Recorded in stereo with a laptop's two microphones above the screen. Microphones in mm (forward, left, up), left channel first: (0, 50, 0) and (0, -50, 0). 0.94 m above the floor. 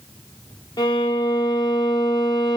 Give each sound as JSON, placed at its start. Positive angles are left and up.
{"t": 0.8, "sound": "a violin", "side_deg": 45, "distance_m": 0.9}